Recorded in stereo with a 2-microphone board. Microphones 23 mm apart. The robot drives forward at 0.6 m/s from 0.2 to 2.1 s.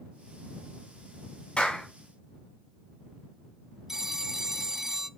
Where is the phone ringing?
20° right (ahead or behind), 0.6 m.